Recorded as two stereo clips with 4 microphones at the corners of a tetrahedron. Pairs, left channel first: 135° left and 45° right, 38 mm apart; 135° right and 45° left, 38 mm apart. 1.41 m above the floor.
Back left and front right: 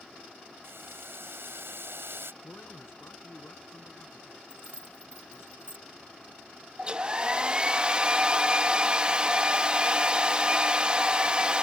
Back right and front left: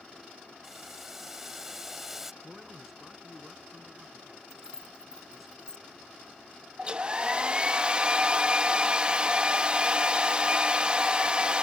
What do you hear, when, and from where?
0.6 s boiling: 35° right
2.4 s a man speaking: 125° left
4.5 s keys jangling: 160° left
6.8 s a hair dryer: straight ahead